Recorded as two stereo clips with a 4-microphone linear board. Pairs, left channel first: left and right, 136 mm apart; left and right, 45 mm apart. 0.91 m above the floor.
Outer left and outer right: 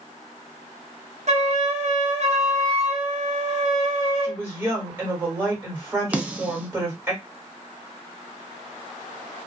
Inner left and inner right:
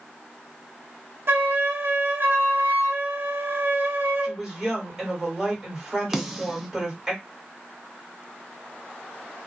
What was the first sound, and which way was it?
A flute, 55° right (ahead or behind).